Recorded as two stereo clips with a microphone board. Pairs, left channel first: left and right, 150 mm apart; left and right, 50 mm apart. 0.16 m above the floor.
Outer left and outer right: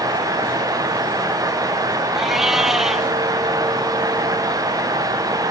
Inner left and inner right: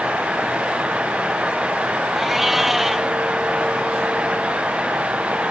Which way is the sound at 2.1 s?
5° right (ahead or behind).